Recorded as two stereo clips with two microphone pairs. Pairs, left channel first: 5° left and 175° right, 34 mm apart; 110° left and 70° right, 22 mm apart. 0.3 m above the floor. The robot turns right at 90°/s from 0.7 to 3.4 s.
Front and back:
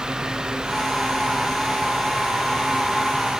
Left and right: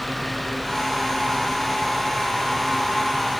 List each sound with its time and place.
Only background noise.